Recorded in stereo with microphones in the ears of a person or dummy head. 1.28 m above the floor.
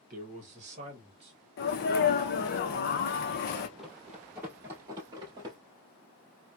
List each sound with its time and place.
0.1 s a man speaking: 45° right (ahead or behind), 1.1 m; by 1.3 s 30° right (ahead or behind), 1.7 m
1.6 s a sneeze: 50° left (ahead or behind), 0.7 m
3.8 s running footsteps: centre (ahead or behind), 1.9 m; by 5.6 s 30° right (ahead or behind), 1.8 m